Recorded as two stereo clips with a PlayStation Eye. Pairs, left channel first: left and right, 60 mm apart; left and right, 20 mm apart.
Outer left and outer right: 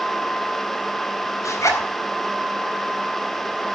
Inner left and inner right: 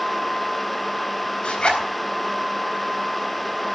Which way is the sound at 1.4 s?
65° left (ahead or behind).